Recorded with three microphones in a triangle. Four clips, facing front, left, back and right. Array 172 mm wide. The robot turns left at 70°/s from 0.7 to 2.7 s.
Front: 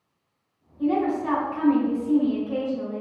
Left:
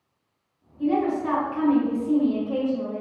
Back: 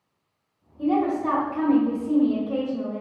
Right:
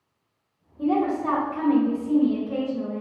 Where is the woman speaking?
110° right, 1.1 m; by 3.0 s 120° left, 1.1 m.